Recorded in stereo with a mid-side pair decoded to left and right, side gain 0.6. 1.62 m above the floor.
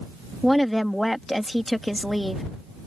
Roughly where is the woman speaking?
Ahead.